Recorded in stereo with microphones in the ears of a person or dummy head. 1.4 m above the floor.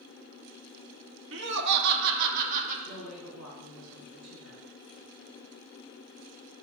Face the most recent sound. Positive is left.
turn(degrees=-85)